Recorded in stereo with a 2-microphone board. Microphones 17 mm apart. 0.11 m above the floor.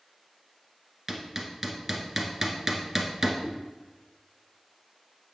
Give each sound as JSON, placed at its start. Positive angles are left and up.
{"t": 1.1, "sound": "hammering", "side_deg": -25, "distance_m": 1.3}
{"t": 3.4, "sound": "a whoosh", "side_deg": -65, "distance_m": 3.5}